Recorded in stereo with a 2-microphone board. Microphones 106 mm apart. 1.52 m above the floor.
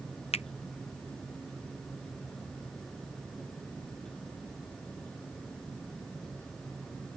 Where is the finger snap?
85° left.